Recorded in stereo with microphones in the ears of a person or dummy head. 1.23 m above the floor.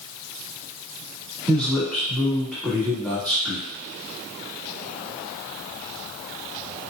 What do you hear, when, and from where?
1.5 s a man speaking: 5° left (ahead or behind), 1.7 m